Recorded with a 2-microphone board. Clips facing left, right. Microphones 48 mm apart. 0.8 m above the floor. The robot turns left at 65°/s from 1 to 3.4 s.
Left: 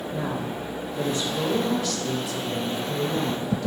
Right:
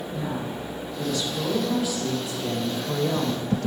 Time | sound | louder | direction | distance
0.1 | a woman speaking | left 1 dB | 50° left | 4 m